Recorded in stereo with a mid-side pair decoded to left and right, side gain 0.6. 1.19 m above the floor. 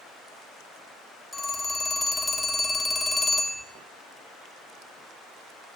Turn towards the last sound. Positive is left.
turn(degrees=15)